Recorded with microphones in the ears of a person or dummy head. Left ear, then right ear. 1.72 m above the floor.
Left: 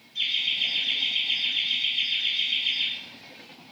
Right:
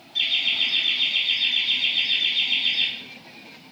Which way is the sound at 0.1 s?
40° right (ahead or behind).